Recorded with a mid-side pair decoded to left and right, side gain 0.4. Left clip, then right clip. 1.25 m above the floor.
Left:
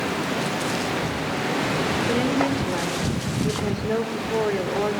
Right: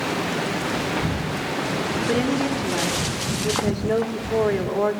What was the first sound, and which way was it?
A woman speaking, 5° right.